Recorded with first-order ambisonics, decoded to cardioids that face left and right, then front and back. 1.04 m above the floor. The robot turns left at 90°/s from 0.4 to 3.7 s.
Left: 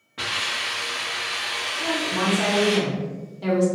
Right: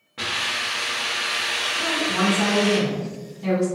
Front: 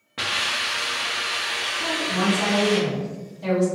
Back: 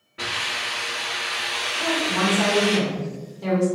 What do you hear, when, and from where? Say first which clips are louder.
0.2 s a hiss: right 1 dB, front 2 dB; straight ahead, 1.1 m; by 2.8 s 145° left, 1.1 m
1.8 s a woman speaking: even, back 4 dB; 105° right, 1.6 m; by 3.7 s 85° left, 1.6 m